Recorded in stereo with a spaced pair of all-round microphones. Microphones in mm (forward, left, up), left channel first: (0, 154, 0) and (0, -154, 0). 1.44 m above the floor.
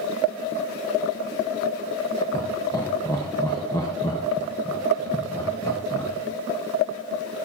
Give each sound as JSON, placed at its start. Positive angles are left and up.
{"t": 2.3, "sound": "laughter", "side_deg": 10, "distance_m": 1.3}